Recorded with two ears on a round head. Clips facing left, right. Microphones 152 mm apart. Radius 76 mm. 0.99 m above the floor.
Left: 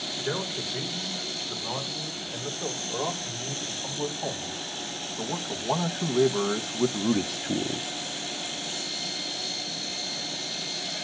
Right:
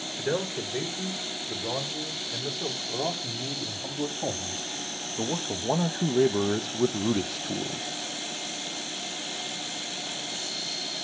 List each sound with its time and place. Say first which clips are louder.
0.2 s a man speaking: right 4 dB; 30° right (ahead or behind), 4.5 m; by 7.9 s 25° left (ahead or behind), 0.6 m